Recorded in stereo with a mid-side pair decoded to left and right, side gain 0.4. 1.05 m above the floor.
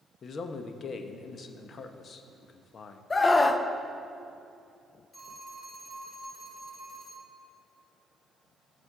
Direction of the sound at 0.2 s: 55° left.